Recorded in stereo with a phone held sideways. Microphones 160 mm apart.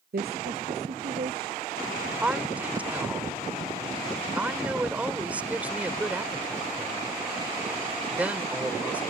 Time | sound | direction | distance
0.1 | a woman speaking | 80° right | ?
2.2 | a woman speaking | 10° right (ahead or behind) | ?